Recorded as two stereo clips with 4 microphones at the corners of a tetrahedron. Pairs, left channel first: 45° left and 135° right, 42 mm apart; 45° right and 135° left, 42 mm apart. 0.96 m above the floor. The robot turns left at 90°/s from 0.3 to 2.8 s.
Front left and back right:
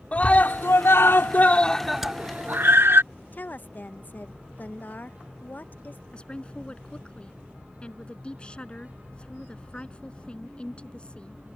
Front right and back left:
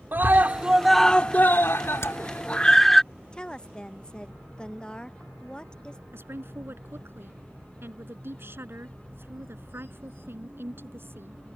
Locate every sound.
0.1 s a scream: 100° left; by 3.0 s 125° right
2.0 s hammering: 50° right; by 2.2 s 65° right
3.3 s a woman speaking: 15° left
6.1 s a woman speaking: 110° left